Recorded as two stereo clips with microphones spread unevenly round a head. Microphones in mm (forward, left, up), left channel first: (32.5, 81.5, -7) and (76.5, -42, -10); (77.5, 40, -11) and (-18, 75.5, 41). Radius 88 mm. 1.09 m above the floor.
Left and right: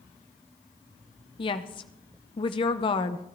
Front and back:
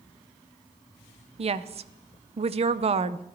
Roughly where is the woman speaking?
Behind left.